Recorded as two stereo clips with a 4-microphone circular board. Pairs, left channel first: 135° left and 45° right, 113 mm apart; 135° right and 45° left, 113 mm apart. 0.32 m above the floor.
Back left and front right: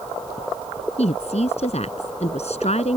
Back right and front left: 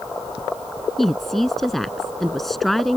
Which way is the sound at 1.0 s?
135° left.